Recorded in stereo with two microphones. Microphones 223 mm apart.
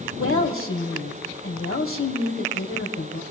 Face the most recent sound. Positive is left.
turn(degrees=70)  # may be behind; listen again after turning